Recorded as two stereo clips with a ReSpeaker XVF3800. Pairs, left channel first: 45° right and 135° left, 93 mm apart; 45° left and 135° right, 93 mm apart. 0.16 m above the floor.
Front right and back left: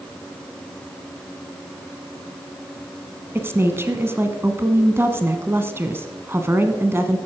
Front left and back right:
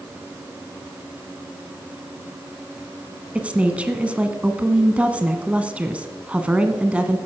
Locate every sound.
3.4 s a woman speaking: 165° left, 1.2 m